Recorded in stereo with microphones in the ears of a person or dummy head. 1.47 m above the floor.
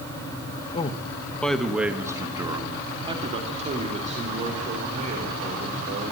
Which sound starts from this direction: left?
A man speaking, at 0.7 s.